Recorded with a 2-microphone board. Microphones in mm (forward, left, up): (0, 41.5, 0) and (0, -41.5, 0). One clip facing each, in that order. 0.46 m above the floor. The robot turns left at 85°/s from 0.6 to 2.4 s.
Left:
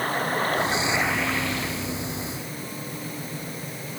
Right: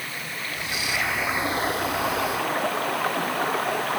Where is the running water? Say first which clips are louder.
Left 10 dB; 45° left; by 4.0 s 110° right.